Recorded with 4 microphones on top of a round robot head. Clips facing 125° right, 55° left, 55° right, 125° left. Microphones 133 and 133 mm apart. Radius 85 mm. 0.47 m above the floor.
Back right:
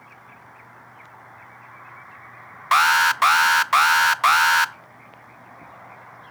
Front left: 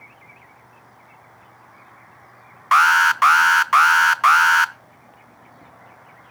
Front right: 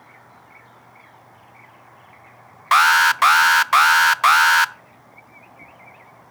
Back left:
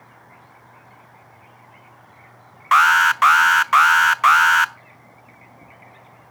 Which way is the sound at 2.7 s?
85° right.